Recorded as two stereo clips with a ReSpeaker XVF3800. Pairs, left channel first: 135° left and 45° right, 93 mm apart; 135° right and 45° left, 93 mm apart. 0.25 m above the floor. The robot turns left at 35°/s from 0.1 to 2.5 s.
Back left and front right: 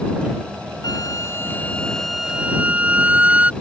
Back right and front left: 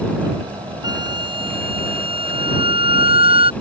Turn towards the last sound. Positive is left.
turn(degrees=30)